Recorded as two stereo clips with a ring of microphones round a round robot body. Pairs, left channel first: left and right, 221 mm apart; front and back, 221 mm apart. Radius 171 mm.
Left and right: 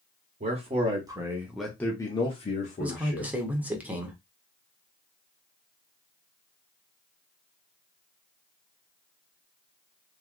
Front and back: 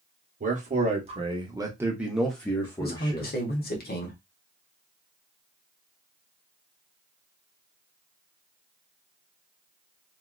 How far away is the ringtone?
No ringtone in this recording.